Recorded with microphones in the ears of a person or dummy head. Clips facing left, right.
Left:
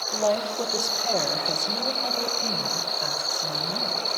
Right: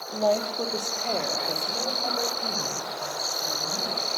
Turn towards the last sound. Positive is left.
turn(degrees=0)  # may be behind; listen again after turning